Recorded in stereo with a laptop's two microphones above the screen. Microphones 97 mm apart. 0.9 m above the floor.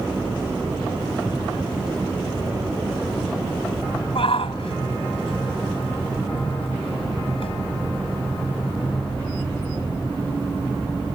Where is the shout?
70° left (ahead or behind).